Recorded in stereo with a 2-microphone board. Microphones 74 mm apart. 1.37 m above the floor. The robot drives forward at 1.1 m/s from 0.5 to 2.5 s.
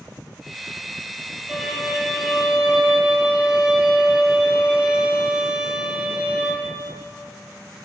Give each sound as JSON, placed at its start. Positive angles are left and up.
{"t": 1.5, "sound": "a violin", "side_deg": -5, "distance_m": 3.5}